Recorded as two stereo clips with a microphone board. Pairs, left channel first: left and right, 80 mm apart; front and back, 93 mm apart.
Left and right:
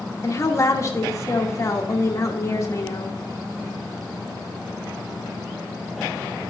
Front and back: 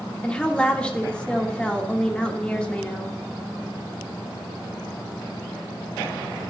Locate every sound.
0.2 s a woman speaking: 75° left, 1.0 m